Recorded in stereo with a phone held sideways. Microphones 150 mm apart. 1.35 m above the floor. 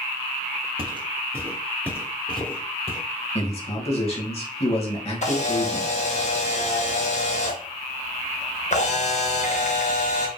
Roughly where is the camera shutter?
Left.